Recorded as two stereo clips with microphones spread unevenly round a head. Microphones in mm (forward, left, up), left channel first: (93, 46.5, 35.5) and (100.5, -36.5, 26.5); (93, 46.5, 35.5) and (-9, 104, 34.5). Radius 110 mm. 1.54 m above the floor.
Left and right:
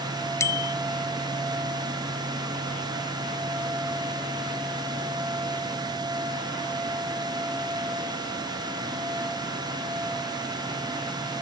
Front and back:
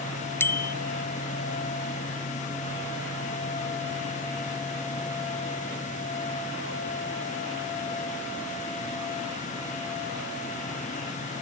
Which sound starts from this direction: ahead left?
A bicycle bell, at 0.4 s.